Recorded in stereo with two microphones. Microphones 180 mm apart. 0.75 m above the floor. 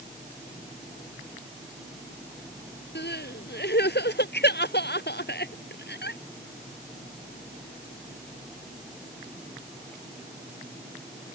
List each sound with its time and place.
3.0 s crying: 70° left (ahead or behind)